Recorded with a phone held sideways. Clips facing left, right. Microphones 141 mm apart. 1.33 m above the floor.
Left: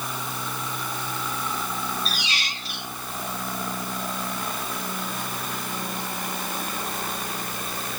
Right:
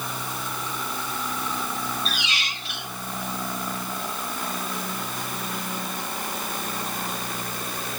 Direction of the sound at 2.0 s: 40° left (ahead or behind).